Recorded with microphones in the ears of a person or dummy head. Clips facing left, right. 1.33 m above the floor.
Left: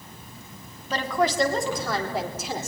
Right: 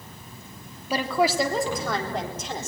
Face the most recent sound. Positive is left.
turn(degrees=5)  # may be behind; listen again after turning